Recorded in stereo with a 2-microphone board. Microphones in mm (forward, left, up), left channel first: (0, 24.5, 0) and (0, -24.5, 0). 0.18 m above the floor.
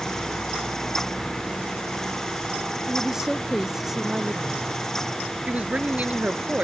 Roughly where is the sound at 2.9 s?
Centre.